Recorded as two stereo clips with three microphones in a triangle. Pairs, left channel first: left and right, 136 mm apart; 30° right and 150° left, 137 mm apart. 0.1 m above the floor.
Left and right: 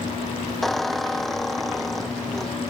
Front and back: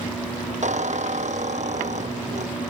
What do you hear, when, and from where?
0.6 s a squeak: straight behind, 0.8 m